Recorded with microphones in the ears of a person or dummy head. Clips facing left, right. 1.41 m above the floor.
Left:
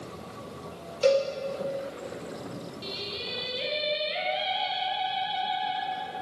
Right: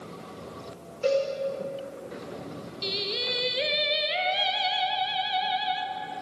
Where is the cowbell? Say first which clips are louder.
Left 2 dB; 45° left (ahead or behind), 1.2 m.